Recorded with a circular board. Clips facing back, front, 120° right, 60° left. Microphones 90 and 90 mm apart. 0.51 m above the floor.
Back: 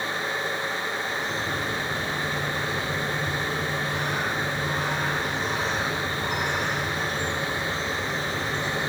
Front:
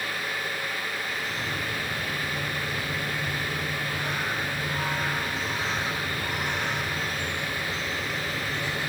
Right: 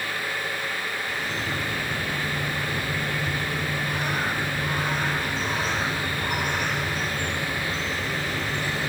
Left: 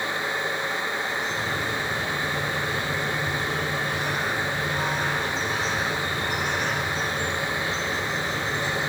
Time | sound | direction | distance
1.1 | a bird | 160° right | 8.5 m